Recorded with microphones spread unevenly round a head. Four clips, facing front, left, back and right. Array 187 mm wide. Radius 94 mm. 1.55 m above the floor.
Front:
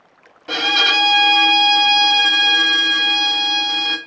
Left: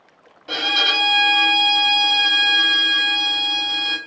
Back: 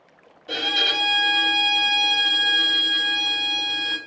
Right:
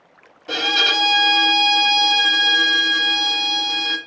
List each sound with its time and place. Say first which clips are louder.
0.5 s a violin: right 2 dB, front 7 dB; straight ahead, 1.2 m